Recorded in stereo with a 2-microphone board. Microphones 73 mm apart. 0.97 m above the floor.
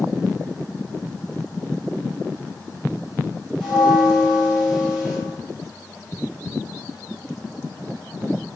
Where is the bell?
15° right (ahead or behind), 1.6 m.